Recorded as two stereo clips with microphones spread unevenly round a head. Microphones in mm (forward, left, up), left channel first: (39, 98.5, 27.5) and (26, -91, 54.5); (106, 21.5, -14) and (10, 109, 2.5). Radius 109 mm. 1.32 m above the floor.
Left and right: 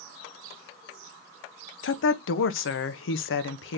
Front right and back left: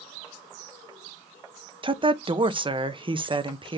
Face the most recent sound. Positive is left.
turn(degrees=85)